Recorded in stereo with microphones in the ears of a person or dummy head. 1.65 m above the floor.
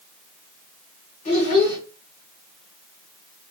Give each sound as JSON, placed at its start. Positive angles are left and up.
{"t": 1.2, "sound": "a child speaking", "side_deg": 45, "distance_m": 1.3}